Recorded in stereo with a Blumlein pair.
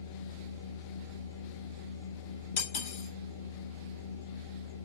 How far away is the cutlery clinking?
About 3 m.